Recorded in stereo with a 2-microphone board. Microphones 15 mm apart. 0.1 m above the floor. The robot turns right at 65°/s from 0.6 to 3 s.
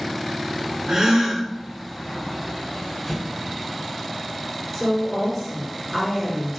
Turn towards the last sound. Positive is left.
turn(degrees=-20)  # may be behind; listen again after turning